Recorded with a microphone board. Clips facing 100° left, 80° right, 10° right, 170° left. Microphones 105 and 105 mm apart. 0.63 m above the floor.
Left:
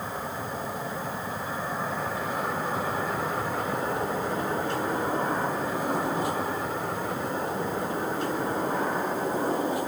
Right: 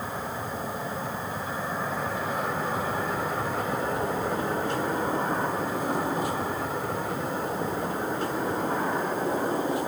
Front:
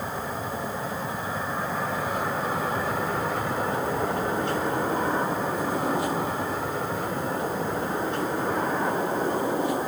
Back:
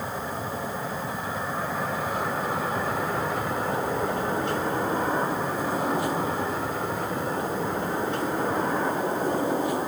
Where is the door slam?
No door slam in this recording.